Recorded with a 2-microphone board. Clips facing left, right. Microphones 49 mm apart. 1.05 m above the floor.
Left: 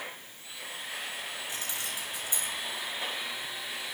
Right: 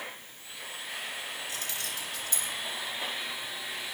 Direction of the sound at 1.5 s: 30° left (ahead or behind).